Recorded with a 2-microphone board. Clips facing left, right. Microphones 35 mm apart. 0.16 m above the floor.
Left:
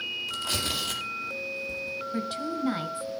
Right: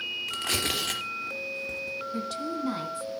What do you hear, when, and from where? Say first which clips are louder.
0.3 s tearing paper: right 2 dB; 65° right (ahead or behind), 3.5 m
2.1 s a woman speaking: left 2 dB; 10° left (ahead or behind), 1.6 m